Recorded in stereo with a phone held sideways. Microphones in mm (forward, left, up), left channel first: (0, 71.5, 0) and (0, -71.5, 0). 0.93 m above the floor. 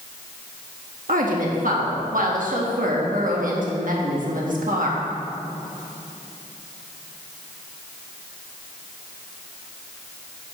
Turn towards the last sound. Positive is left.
turn(degrees=-70)  # may be behind; listen again after turning